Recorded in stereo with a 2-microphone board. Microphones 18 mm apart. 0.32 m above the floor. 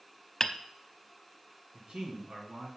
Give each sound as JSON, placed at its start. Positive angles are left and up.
{"t": 0.4, "sound": "hammering", "side_deg": 20, "distance_m": 0.7}
{"t": 1.7, "sound": "a man speaking", "side_deg": -60, "distance_m": 4.0}